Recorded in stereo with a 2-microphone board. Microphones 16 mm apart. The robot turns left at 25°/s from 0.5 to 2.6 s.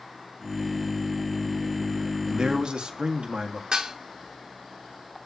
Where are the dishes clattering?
70° right (ahead or behind), 2.5 m.